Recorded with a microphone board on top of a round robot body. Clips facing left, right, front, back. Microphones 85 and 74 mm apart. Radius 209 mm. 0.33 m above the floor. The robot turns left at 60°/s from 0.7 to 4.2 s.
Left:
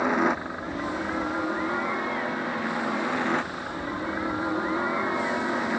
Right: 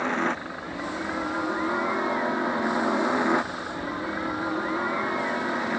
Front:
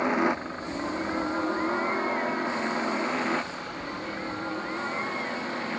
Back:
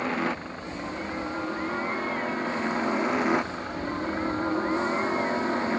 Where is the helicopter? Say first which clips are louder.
Left 3 dB, front 3 dB; 30° left; by 5.8 s straight behind.